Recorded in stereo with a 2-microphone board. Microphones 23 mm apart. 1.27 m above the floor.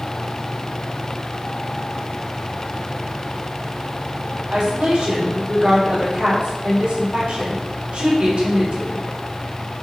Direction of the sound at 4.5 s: 50° right (ahead or behind).